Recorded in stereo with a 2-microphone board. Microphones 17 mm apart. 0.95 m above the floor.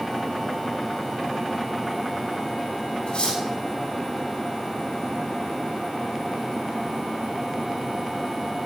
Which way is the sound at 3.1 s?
75° left (ahead or behind).